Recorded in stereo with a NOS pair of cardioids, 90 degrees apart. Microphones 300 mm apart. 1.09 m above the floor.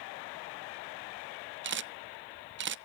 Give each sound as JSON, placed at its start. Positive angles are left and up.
{"t": 1.6, "sound": "a camera shutter", "azimuth_deg": -40, "distance_m": 0.5}